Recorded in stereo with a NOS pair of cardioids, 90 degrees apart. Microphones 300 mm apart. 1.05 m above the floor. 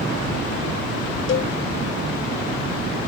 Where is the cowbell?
45° left.